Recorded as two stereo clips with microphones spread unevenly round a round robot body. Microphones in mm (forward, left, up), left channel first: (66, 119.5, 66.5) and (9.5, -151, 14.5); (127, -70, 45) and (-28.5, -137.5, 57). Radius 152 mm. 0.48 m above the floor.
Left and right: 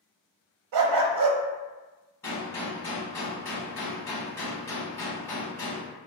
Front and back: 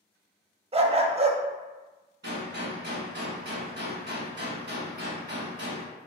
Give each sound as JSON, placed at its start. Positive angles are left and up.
{"t": 0.7, "sound": "a dog barking", "azimuth_deg": -100, "distance_m": 0.6}
{"t": 2.2, "sound": "a gunshot", "azimuth_deg": 155, "distance_m": 0.6}